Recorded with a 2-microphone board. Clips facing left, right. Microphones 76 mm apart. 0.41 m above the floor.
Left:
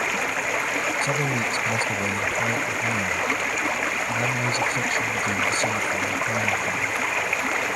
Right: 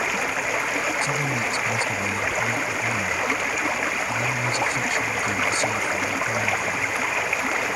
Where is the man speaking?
50° left (ahead or behind).